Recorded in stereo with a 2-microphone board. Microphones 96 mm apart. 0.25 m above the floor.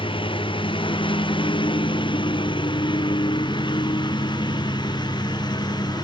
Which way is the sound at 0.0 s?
70° left (ahead or behind).